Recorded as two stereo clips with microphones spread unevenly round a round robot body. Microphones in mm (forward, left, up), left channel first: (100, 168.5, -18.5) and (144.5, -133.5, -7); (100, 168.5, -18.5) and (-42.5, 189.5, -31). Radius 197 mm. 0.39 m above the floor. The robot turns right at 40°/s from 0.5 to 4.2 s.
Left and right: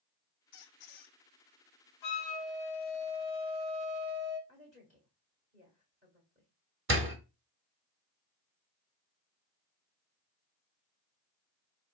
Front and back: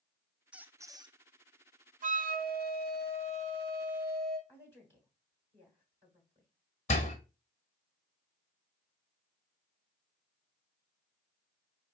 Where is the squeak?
85° left, 0.8 m; by 1.2 s 110° left, 0.8 m.